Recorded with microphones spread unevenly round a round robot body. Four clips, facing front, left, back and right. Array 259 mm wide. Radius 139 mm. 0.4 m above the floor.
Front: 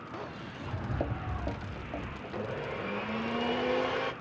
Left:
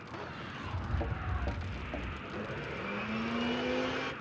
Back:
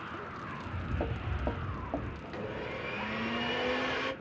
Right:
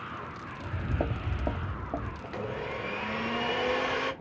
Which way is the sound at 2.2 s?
45° right.